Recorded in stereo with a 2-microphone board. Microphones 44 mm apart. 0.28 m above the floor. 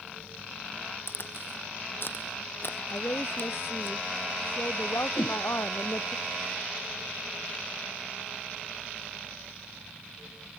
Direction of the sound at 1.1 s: 60° left (ahead or behind).